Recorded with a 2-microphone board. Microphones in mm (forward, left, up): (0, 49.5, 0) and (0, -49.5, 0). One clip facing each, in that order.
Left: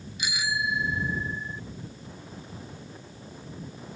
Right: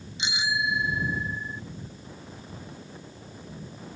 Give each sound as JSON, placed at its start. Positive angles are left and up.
{"t": 0.2, "sound": "a bicycle bell", "side_deg": -25}